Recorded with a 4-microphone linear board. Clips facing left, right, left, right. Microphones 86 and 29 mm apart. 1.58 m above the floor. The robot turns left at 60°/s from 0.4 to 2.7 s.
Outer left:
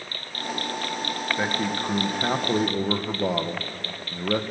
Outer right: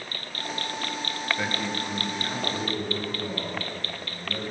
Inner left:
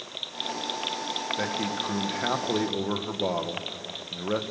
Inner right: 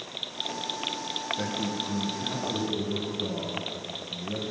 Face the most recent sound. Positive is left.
turn(degrees=80)